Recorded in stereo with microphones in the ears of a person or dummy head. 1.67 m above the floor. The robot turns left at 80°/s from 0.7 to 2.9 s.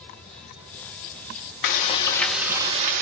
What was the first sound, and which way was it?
Frying, 55° left.